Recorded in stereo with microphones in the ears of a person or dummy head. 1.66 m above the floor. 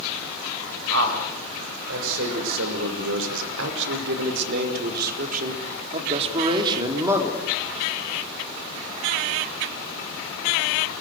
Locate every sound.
0.9 s a man speaking: 90° right, 8.5 m; by 7.4 s centre (ahead or behind), 4.5 m